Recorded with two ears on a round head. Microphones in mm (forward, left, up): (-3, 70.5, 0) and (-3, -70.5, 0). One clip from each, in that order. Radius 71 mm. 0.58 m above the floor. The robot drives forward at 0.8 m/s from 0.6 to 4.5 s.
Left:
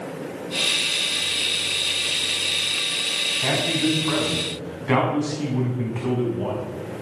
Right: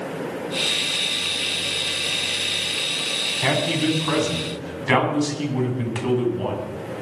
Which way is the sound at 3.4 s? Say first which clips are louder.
Even; 65° right (ahead or behind).